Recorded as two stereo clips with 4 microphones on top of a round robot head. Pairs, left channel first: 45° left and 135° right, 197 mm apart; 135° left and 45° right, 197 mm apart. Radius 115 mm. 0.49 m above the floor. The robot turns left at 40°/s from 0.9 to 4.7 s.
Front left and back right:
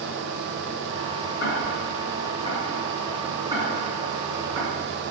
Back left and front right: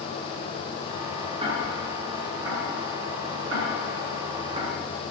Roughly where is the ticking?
Ahead.